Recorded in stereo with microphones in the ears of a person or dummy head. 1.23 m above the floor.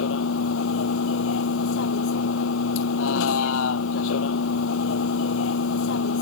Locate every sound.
0.0 s a vehicle: 85° left